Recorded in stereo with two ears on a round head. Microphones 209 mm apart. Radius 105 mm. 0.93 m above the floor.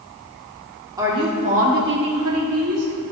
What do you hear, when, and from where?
1.0 s a woman speaking: 15° right (ahead or behind), 2.5 m; by 2.9 s 70° right (ahead or behind), 2 m